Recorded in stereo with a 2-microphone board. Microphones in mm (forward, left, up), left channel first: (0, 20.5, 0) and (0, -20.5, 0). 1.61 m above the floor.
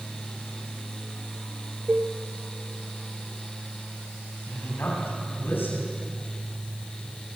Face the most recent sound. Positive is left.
turn(degrees=65)  # may be behind; listen again after turning